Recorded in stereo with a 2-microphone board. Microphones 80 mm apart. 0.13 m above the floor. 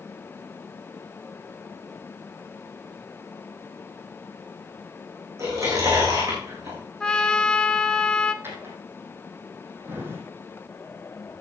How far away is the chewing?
About 6 m.